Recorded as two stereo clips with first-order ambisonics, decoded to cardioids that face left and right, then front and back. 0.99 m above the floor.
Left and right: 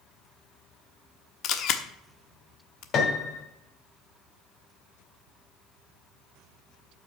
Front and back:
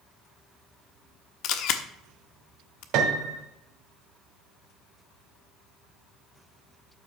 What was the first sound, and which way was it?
A camera shutter, 40° left.